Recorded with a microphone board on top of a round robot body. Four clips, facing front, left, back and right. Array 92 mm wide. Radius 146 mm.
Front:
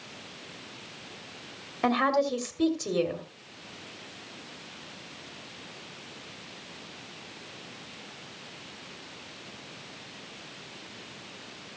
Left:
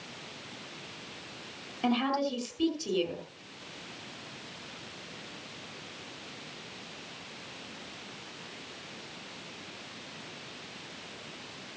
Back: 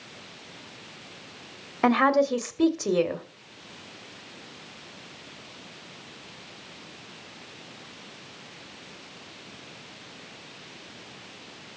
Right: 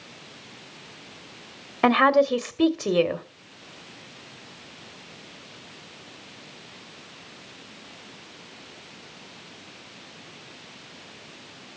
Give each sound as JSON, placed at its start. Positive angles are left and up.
{"t": 1.8, "sound": "a woman speaking", "azimuth_deg": -110, "distance_m": 2.0}